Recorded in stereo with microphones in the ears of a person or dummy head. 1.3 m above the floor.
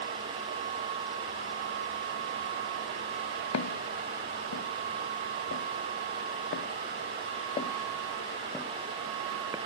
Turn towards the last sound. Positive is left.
turn(degrees=-15)  # may be behind; listen again after turning